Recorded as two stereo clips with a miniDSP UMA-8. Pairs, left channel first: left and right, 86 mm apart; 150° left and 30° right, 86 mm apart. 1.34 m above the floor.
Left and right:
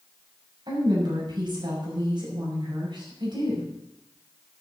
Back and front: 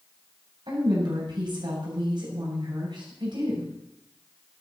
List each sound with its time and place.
0.7 s a woman speaking: 60° right, 7.5 m